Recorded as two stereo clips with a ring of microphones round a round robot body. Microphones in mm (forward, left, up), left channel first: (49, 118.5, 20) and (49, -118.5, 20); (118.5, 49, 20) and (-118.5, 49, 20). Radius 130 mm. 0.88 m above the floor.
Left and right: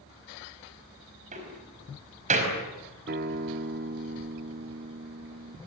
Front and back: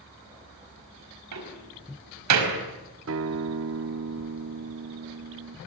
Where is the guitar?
145° right, 0.6 m.